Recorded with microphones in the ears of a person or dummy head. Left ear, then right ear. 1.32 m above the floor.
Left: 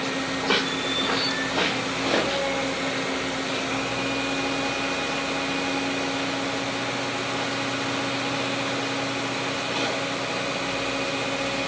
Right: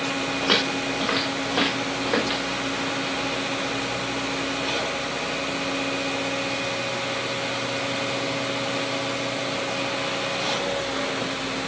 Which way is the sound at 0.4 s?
70° right (ahead or behind).